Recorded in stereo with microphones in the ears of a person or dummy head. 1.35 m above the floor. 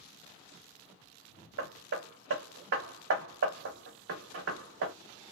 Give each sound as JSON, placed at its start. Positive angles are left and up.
{"t": 1.6, "sound": "hammering", "side_deg": -65, "distance_m": 0.7}